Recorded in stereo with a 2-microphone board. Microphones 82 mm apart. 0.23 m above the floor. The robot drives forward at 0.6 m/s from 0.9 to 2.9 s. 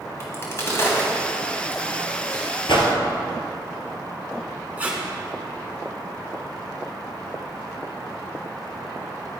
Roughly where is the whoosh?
Left.